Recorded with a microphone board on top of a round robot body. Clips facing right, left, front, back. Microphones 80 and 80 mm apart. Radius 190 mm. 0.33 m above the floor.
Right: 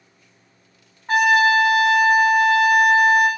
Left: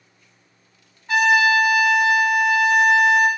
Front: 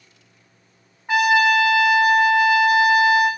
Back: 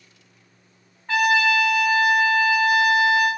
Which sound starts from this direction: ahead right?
A trumpet, at 1.1 s.